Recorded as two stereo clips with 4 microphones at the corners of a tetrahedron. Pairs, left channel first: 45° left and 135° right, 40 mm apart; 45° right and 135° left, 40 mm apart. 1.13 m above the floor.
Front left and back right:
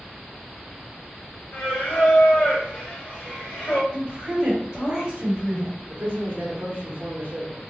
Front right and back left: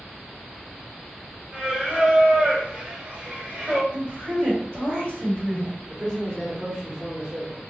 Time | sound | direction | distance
1.5 | singing | 80° left | 1.3 m
3.9 | a woman speaking | 155° left | 1.5 m
5.9 | a man speaking | straight behind | 1.2 m